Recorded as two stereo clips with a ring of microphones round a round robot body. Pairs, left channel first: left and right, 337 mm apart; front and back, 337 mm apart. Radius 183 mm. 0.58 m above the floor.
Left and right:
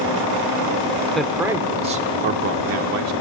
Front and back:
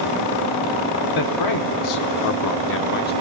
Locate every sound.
1.1 s a man speaking: straight ahead, 1.4 m; by 3.1 s 60° right, 1.3 m